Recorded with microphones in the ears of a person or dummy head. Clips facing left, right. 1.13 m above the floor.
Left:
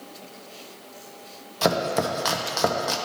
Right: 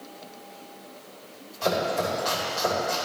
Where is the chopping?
75° left (ahead or behind), 0.8 m.